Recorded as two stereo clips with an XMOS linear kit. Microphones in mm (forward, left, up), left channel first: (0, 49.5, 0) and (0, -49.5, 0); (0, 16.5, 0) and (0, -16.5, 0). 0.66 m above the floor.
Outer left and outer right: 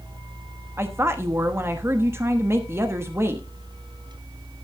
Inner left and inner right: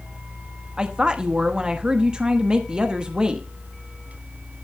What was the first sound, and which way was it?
A woman speaking, 25° right (ahead or behind).